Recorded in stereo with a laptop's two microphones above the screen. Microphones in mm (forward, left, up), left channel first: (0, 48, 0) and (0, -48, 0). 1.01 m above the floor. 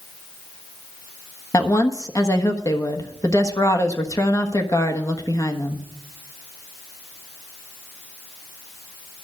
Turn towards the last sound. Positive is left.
turn(degrees=35)  # may be behind; listen again after turning